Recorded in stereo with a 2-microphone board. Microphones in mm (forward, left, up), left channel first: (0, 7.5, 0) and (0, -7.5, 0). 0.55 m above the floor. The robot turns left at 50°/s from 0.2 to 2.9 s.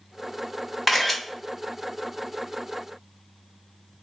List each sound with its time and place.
0.9 s a camera shutter: 10° right (ahead or behind), 1.2 m; by 1.2 s centre (ahead or behind), 1.2 m